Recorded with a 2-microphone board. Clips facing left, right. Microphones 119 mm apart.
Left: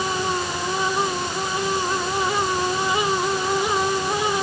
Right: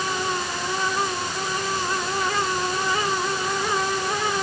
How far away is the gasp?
I don't hear a gasp.